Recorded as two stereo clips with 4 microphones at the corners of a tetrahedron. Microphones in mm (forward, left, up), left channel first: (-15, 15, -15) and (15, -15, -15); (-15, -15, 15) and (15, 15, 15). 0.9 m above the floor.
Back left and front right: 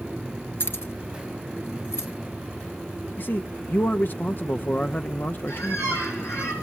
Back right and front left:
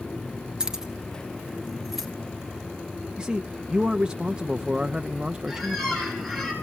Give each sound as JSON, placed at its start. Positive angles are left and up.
{"t": 0.6, "sound": "keys jangling", "azimuth_deg": 115, "distance_m": 1.2}
{"t": 3.2, "sound": "a man speaking", "azimuth_deg": 110, "distance_m": 0.7}
{"t": 5.5, "sound": "a squeak", "azimuth_deg": 130, "distance_m": 7.0}